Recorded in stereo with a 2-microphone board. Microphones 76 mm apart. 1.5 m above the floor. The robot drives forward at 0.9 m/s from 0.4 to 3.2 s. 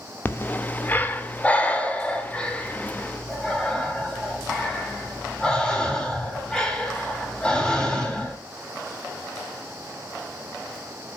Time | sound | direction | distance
0.2 | breathing | 30° left (ahead or behind) | 1.3 m